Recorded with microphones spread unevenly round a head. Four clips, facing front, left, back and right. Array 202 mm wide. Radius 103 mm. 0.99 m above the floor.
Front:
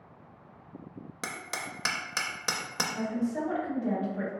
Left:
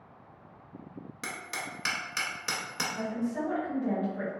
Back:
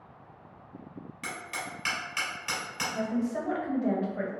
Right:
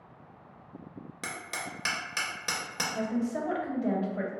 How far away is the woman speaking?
About 1.1 m.